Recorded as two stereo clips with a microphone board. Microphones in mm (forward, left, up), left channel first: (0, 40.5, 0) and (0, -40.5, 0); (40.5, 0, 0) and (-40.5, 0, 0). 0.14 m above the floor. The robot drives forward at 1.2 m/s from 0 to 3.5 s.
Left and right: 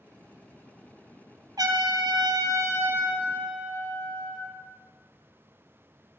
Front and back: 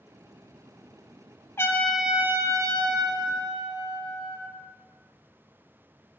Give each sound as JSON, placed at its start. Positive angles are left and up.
{"t": 1.6, "sound": "a trumpet", "azimuth_deg": -55, "distance_m": 0.9}